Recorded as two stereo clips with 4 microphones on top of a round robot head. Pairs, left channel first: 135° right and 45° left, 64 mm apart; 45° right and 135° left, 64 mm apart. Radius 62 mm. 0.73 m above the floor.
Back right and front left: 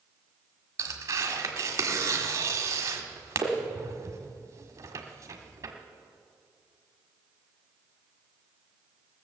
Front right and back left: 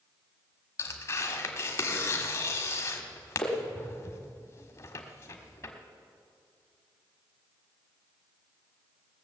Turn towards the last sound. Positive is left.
turn(degrees=0)